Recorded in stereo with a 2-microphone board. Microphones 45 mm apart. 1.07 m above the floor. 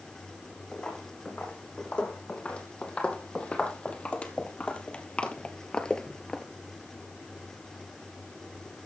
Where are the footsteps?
25° left (ahead or behind), 3.5 m; by 6.5 s 10° left (ahead or behind), 1.0 m.